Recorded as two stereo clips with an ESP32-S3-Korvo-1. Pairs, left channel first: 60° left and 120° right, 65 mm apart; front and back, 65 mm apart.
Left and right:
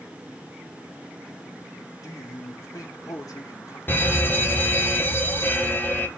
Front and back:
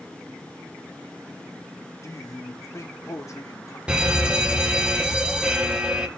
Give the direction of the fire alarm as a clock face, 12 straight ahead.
8 o'clock.